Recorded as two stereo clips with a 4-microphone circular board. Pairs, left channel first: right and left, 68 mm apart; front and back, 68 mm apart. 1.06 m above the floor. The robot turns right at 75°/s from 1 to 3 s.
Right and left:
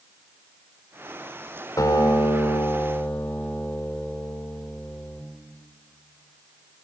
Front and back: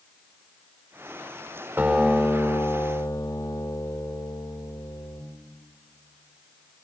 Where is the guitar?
115° right, 4.5 m; by 5.2 s 20° right, 4.5 m.